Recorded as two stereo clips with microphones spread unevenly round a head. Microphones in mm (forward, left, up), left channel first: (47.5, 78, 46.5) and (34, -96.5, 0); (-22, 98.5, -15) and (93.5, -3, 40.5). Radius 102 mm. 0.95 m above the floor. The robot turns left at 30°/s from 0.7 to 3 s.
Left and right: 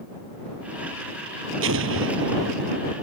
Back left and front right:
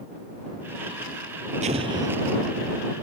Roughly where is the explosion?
Right.